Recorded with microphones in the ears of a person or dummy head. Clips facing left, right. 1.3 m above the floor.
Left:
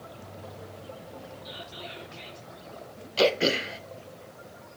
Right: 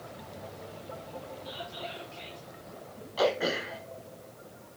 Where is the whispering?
25° left (ahead or behind), 4 m.